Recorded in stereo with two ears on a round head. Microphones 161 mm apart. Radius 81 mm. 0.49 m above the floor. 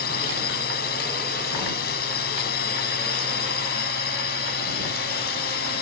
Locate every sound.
0.0 s a drone: 60° left (ahead or behind)